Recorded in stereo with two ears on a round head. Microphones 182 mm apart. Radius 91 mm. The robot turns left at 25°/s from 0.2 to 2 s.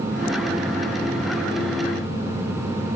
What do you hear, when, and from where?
Only background noise.